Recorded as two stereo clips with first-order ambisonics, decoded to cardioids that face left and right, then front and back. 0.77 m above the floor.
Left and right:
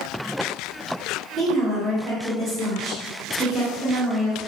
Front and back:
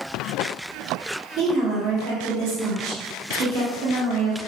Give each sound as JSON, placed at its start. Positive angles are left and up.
{"t": 1.4, "sound": "a woman speaking", "azimuth_deg": -160, "distance_m": 1.4}